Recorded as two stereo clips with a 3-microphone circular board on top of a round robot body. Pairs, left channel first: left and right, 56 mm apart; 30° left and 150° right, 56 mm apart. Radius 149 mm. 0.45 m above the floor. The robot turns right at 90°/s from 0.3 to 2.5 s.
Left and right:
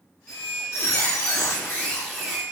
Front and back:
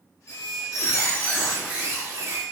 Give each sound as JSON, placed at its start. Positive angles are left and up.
{"t": 0.3, "sound": "a squeak", "azimuth_deg": 15, "distance_m": 3.0}